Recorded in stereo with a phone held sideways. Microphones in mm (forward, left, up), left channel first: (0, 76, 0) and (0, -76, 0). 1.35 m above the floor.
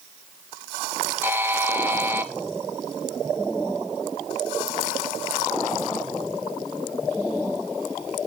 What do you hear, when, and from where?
1.2 s a buzzer: 15° right (ahead or behind), 0.9 m